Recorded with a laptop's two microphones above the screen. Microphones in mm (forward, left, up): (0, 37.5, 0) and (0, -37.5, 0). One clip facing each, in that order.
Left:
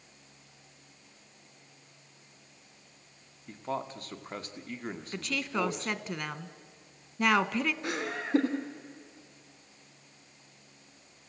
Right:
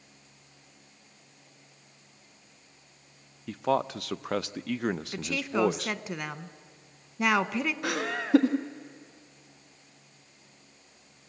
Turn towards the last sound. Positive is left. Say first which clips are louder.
# right 3 dB
turn(degrees=-75)  # may be behind; listen again after turning